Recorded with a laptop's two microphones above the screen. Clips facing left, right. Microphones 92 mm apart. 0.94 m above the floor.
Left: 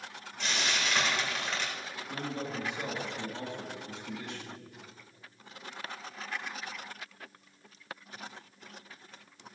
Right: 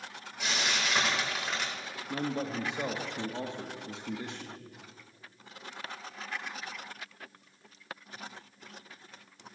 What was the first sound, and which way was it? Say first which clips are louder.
Frying: even; 10° right (ahead or behind).